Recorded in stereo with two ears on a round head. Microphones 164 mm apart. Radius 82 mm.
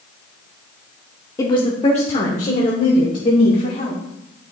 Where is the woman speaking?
20° left (ahead or behind), 0.7 m; by 4.0 s 45° left (ahead or behind), 2.5 m.